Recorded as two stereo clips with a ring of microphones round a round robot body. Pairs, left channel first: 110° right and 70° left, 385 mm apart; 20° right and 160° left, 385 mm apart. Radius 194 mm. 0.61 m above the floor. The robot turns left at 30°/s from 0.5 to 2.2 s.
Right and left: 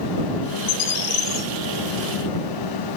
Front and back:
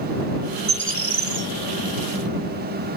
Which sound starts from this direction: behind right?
A bird, at 0.7 s.